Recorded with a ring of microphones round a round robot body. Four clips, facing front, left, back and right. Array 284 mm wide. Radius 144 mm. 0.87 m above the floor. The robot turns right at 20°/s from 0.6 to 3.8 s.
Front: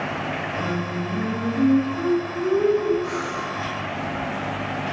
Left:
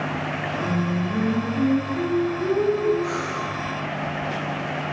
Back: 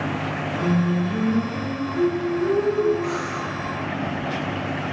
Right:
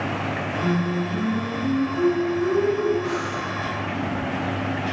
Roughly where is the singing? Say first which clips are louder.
Right 2 dB, back 4 dB; behind left.